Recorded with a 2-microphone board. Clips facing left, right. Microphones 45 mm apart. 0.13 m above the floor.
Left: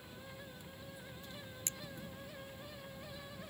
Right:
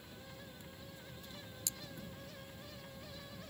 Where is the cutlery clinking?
45° left (ahead or behind).